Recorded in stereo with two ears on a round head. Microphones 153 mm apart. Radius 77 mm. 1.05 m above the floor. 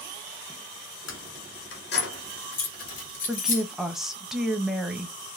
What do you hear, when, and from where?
1.1 s keys jangling: 80° left, 1.9 m; by 3.6 s 45° left (ahead or behind), 2.5 m
3.3 s a woman speaking: 5° right (ahead or behind), 0.7 m